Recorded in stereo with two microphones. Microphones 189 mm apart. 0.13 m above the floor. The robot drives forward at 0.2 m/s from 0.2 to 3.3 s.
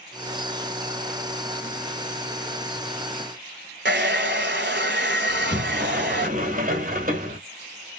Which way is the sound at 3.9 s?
65° right (ahead or behind).